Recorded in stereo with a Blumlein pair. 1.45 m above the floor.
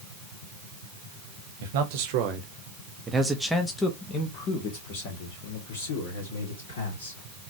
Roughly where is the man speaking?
Ahead right.